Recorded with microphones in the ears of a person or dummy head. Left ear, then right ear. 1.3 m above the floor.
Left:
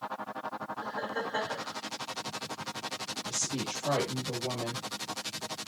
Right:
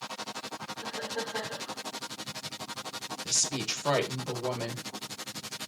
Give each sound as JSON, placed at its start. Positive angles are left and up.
{"t": 0.8, "sound": "laughter", "side_deg": 65, "distance_m": 4.0}
{"t": 3.2, "sound": "a woman speaking", "side_deg": -55, "distance_m": 1.1}